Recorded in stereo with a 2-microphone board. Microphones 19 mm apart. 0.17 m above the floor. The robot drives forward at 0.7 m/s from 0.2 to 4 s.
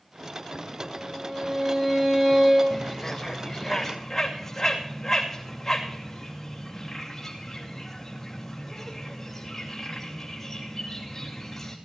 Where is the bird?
15° left (ahead or behind), 1.9 m; by 11.8 s 10° left (ahead or behind), 3 m.